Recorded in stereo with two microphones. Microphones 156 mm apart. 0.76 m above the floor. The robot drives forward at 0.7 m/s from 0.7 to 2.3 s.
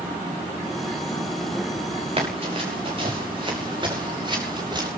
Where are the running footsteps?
45° right (ahead or behind), 6 m; by 4.9 s 30° right (ahead or behind), 7.5 m.